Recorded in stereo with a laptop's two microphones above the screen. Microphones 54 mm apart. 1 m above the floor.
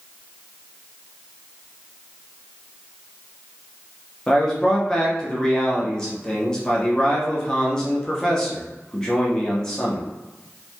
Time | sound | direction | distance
4.3 | a man speaking | 15° left (ahead or behind) | 0.7 m